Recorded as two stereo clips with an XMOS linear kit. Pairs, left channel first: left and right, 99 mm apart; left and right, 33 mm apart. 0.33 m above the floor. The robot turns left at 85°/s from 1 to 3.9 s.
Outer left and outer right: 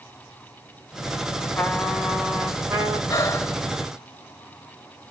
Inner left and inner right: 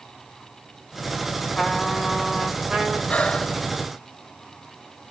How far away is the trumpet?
About 1.2 m.